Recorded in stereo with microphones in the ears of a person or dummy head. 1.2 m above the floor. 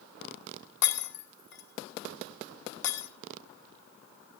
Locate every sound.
0.8 s breaking glass: 80° left, 2.5 m